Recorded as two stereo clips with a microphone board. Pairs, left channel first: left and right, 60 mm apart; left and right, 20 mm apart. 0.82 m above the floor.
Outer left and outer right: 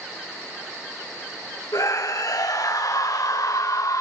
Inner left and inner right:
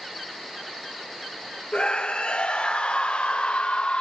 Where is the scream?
75° left (ahead or behind), 2.5 m; by 4.0 s 65° left (ahead or behind), 1.7 m.